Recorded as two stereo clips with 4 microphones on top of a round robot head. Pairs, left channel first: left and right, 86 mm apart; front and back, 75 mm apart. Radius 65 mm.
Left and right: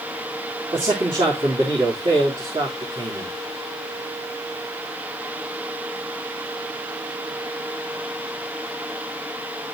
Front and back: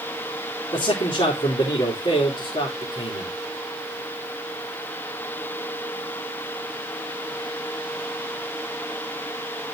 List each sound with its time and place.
0.7 s a man speaking: 40° right, 3 m